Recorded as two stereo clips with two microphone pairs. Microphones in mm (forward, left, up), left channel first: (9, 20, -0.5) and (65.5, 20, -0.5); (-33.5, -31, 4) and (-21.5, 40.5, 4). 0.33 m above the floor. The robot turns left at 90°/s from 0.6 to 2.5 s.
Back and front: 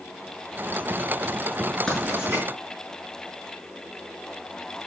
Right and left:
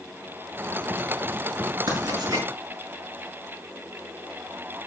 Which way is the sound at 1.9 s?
95° left.